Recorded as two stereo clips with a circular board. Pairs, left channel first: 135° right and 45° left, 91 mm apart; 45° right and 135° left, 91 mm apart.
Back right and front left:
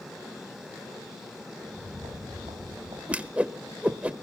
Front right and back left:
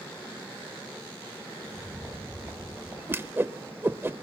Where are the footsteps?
75° left, 7.5 m; by 3.0 s 70° left, 6 m.